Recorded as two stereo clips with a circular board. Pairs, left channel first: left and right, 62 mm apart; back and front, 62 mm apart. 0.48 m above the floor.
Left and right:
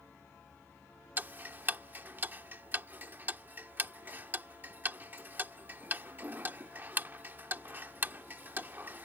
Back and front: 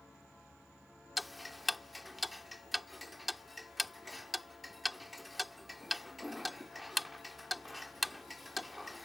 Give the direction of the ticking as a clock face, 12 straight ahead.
3 o'clock.